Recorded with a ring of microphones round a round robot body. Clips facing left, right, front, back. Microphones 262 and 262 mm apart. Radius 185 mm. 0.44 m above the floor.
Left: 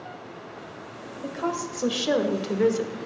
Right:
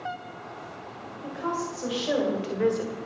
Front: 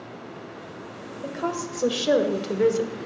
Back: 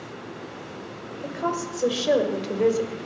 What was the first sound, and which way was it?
A woman speaking, 90° left.